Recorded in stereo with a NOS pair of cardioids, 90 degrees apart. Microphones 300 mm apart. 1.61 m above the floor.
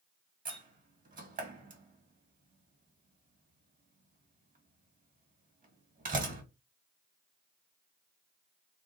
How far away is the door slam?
About 1.7 m.